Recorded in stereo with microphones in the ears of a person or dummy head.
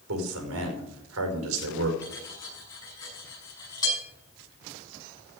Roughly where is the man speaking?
Right.